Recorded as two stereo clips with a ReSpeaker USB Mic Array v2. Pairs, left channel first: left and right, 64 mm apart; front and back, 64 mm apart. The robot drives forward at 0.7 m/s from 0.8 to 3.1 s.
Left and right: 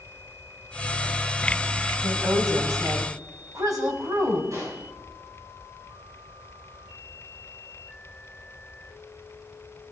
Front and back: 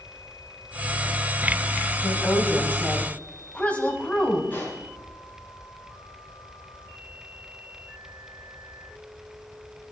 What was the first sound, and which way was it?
A woman speaking, 55° right.